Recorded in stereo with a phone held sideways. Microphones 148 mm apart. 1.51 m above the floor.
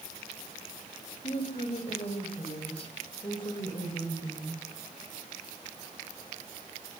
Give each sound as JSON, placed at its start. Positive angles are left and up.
{"t": 1.2, "sound": "a woman speaking", "side_deg": 50, "distance_m": 7.5}